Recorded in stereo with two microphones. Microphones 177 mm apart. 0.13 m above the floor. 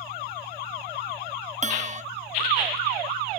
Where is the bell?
40° right (ahead or behind).